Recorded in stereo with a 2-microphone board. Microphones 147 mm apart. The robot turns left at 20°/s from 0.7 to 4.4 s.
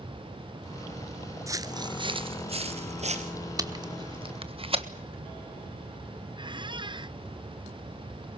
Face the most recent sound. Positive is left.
turn(degrees=-35)  # may be behind; listen again after turning